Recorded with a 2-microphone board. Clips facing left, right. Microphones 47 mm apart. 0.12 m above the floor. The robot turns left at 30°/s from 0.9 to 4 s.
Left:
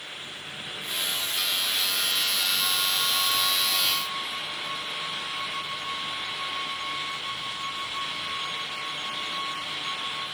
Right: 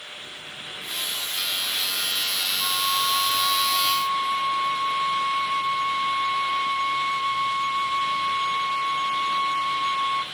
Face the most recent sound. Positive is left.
turn(degrees=-60)